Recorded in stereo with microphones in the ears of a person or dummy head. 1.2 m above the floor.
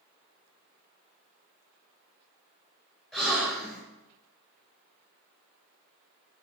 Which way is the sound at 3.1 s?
Centre (ahead or behind).